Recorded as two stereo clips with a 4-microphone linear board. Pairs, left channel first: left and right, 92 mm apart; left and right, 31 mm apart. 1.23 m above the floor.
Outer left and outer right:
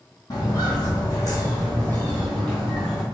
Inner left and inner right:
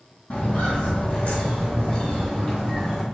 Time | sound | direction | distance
0.3 | footsteps | 40° left (ahead or behind) | 1.6 m